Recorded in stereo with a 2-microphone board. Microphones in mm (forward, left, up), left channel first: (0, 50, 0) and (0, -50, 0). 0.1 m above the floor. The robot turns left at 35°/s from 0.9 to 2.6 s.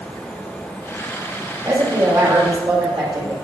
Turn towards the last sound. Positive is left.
turn(degrees=-55)